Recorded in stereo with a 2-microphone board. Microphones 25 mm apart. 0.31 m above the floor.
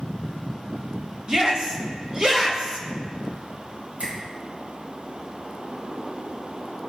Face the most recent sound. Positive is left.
turn(degrees=-70)  # may be behind; listen again after turning